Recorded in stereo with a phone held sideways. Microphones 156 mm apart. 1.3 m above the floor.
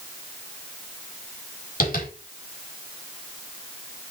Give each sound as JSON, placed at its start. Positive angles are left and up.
{"t": 1.8, "sound": "tapping", "side_deg": 85, "distance_m": 4.0}